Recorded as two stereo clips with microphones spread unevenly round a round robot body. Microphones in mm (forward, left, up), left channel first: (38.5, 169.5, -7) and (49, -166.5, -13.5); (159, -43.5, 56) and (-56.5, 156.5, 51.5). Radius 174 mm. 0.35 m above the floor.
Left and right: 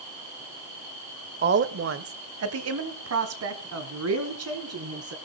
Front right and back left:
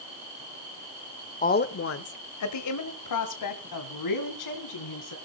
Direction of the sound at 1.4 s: 80° right.